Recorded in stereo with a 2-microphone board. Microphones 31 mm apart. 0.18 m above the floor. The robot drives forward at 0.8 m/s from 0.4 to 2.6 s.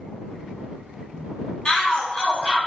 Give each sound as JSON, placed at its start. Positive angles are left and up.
{"t": 1.6, "sound": "a shout", "side_deg": 30, "distance_m": 1.3}